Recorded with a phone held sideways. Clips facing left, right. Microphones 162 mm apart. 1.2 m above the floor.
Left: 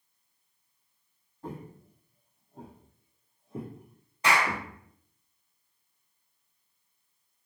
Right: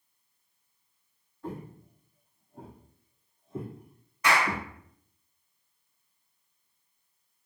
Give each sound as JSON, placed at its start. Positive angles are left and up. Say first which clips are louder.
{"t": 1.4, "sound": "footsteps", "louder": "right 2 dB", "side_deg": 35, "distance_m": 1.5}
{"t": 4.2, "sound": "a clap", "louder": "even", "side_deg": 30, "distance_m": 1.1}